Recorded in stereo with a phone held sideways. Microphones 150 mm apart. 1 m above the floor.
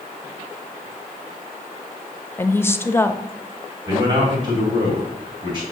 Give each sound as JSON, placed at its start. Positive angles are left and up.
{"t": 2.4, "sound": "a woman speaking", "side_deg": 15, "distance_m": 0.7}
{"t": 3.9, "sound": "a man speaking", "side_deg": -45, "distance_m": 2.5}